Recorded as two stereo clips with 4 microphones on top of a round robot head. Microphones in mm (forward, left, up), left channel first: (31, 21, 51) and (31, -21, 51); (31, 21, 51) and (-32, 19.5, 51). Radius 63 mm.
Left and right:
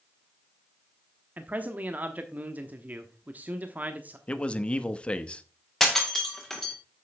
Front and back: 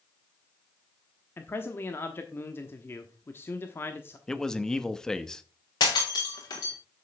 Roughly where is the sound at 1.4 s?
Ahead right.